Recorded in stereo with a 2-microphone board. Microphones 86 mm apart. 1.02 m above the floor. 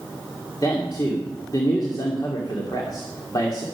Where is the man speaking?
50° left (ahead or behind), 2 m.